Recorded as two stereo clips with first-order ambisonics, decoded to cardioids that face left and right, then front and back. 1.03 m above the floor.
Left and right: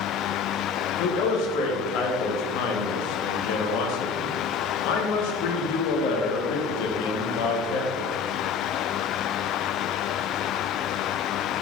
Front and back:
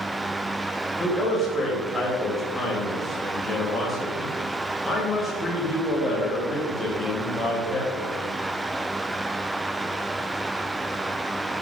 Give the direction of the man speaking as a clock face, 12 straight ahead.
9 o'clock.